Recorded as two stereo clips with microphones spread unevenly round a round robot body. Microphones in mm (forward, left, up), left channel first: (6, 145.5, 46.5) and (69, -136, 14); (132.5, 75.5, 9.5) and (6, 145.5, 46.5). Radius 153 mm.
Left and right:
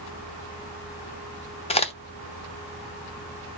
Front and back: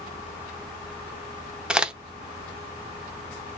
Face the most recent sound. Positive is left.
turn(degrees=45)